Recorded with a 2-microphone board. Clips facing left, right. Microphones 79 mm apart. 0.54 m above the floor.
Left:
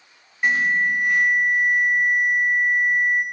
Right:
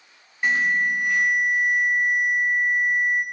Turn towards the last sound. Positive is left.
turn(degrees=5)  # may be behind; listen again after turning